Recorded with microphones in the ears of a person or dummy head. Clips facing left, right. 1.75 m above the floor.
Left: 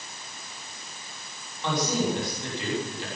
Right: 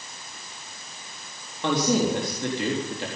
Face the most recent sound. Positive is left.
turn(degrees=-55)  # may be behind; listen again after turning